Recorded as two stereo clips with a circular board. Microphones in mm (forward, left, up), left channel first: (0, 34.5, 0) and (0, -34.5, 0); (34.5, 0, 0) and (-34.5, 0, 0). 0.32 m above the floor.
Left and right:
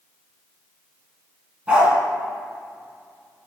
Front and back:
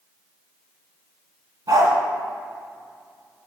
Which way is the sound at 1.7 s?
165° right.